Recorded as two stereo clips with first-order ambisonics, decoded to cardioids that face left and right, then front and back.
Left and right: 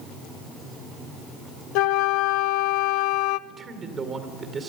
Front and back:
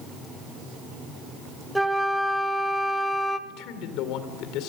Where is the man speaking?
25° right, 2.5 m.